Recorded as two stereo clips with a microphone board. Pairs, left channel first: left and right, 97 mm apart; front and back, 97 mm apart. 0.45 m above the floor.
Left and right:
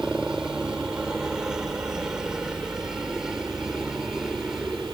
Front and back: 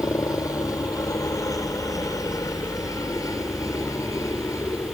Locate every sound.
0.0 s a helicopter: 10° right